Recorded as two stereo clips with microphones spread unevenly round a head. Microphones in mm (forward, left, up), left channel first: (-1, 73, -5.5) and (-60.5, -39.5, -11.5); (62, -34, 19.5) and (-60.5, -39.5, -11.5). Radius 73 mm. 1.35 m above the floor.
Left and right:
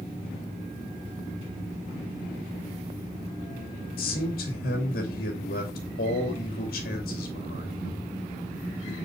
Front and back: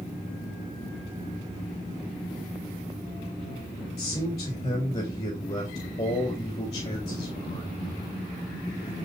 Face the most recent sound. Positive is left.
turn(degrees=60)